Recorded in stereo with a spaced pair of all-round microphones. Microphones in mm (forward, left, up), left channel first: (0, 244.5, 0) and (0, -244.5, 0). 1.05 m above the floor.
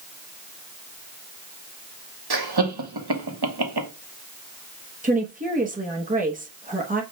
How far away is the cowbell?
No cowbell in this recording.